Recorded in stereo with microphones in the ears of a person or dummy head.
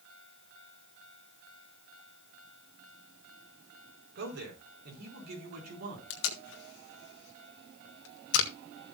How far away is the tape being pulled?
About 1.8 m.